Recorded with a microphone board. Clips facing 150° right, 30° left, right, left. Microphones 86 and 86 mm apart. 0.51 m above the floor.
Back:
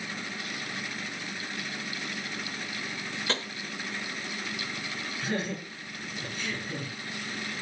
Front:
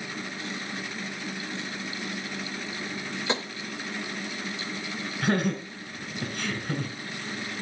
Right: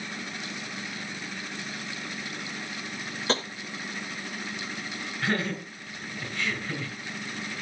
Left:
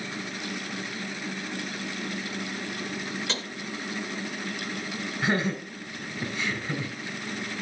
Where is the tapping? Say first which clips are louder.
Front 3 dB, right 6 dB; 40° right, 0.7 m.